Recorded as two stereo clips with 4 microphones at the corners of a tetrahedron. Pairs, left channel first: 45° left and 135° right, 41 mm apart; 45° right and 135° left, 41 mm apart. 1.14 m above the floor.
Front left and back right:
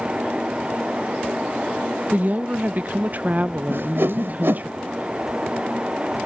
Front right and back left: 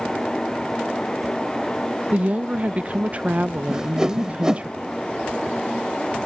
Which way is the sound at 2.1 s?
175° right.